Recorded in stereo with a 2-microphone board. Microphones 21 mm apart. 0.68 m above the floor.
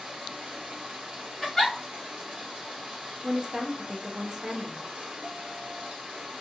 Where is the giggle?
15° left (ahead or behind), 1.6 m.